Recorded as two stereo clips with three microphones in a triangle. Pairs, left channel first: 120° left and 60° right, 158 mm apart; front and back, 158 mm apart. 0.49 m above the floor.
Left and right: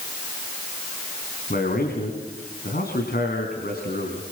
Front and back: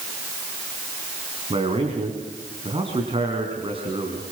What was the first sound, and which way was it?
A man speaking, 125° left.